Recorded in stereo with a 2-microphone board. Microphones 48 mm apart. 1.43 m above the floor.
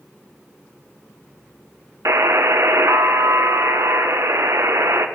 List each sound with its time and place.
2.0 s a buzzer: 85° right, 0.9 m